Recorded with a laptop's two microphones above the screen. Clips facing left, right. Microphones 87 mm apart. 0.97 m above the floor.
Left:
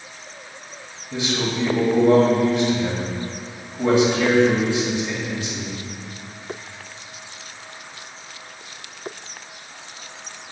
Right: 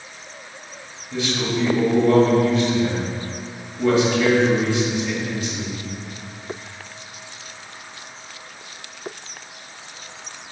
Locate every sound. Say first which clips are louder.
1.1 s a man speaking: right 1 dB; 20° left (ahead or behind), 1.6 m